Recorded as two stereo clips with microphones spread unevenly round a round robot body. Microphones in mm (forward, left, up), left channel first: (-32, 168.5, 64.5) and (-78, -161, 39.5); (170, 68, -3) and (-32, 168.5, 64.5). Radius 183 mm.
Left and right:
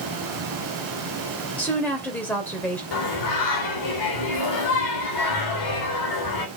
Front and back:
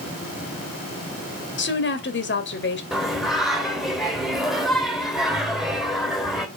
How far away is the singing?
About 3 m.